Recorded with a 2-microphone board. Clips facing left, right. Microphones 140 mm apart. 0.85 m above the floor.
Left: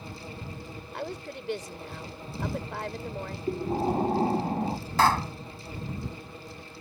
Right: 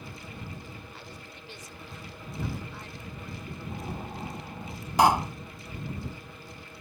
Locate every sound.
0.9 s a woman speaking: 70° left (ahead or behind)
3.5 s breathing: 60° left (ahead or behind)
5.0 s a pop: 15° right (ahead or behind)